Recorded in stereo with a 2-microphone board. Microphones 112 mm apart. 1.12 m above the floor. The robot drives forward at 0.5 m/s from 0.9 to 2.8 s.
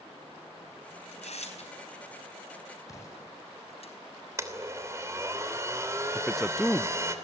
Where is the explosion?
30° left (ahead or behind), 8.5 m.